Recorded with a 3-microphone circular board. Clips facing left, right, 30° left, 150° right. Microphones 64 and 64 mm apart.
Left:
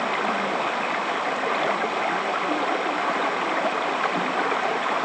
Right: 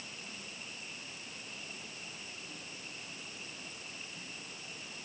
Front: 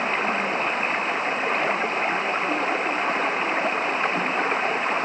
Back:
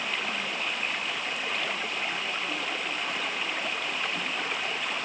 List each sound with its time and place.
0.0 s running water: 80° left